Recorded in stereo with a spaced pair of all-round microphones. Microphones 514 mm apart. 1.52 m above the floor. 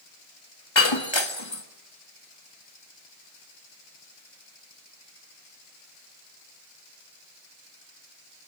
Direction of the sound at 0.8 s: 55° left (ahead or behind).